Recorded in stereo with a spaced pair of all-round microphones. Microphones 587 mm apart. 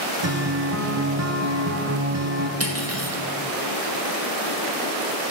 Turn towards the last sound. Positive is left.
turn(degrees=-25)  # may be behind; listen again after turning